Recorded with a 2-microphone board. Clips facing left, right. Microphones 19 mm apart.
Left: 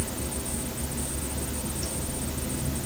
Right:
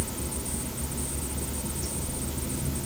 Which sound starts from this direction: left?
Running water, at 0.0 s.